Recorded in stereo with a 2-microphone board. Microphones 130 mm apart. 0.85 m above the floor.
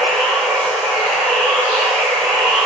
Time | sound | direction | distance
0.0 | running water | 5° left (ahead or behind) | 2.5 m